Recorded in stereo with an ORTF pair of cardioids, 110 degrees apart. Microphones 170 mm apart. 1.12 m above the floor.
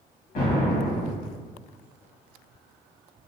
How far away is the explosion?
About 1.3 m.